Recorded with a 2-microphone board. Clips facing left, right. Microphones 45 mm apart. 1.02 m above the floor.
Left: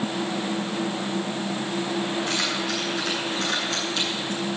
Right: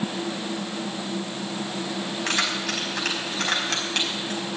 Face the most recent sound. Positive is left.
turn(degrees=-90)